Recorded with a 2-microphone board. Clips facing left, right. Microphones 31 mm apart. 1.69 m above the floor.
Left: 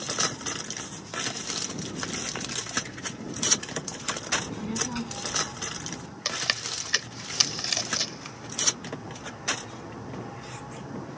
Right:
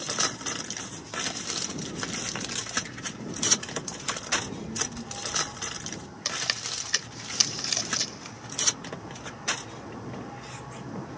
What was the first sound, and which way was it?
A child speaking, 65° left (ahead or behind).